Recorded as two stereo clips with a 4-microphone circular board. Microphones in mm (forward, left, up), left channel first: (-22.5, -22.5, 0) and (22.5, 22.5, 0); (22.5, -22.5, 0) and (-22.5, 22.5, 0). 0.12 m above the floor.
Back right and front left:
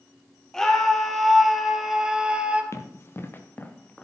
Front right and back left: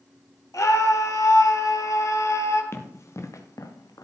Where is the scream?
55° right, 2.5 m; by 2.6 s 20° right, 2.0 m.